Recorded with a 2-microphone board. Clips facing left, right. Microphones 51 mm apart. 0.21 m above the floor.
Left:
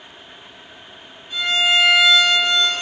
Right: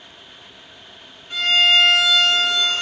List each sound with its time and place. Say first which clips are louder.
1.3 s a violin: right 2 dB; 55° right (ahead or behind), 1.0 m